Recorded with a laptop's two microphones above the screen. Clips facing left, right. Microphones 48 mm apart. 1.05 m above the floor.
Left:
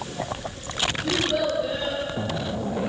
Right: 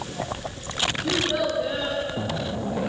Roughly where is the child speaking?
Centre.